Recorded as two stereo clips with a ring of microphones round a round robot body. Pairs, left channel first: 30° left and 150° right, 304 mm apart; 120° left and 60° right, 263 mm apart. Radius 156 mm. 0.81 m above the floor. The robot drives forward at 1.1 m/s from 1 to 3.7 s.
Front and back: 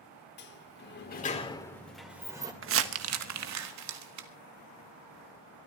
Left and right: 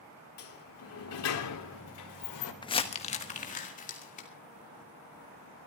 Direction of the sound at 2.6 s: 175° right.